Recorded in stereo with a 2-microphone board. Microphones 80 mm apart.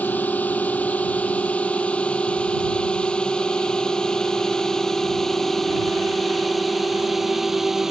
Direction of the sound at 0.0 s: 20° left (ahead or behind).